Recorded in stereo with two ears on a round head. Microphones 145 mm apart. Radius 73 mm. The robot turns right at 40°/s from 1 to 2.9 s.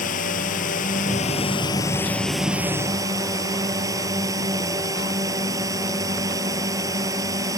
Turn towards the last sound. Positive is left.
turn(degrees=-160)